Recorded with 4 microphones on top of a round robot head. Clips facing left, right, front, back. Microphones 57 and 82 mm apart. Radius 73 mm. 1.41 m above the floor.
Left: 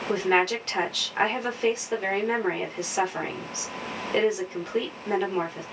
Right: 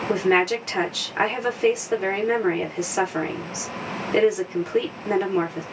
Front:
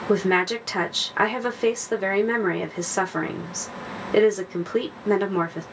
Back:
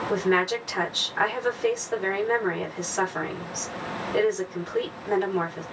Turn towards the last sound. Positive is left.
turn(degrees=-10)